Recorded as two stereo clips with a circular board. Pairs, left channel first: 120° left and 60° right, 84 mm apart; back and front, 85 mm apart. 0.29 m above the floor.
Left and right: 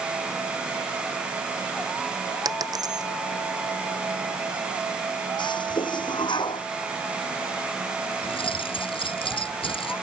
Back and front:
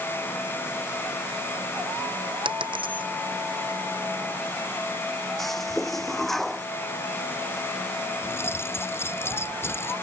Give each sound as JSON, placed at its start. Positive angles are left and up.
{"t": 2.5, "sound": "a dropped coin", "azimuth_deg": -15}
{"t": 5.4, "sound": "a toilet flushing", "azimuth_deg": 95}
{"t": 8.2, "sound": "keys jangling", "azimuth_deg": 120}